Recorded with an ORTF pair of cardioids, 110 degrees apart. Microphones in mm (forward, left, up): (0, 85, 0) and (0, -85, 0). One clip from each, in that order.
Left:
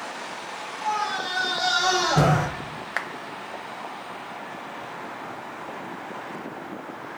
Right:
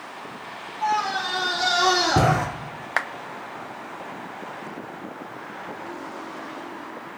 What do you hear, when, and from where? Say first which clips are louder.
0.8 s a scream: right 3 dB; 45° right, 4 m
3.0 s a clap: right 5 dB; 20° right, 0.5 m